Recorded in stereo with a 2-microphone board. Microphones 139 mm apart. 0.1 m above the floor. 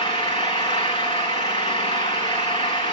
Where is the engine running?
35° left (ahead or behind), 4.5 m.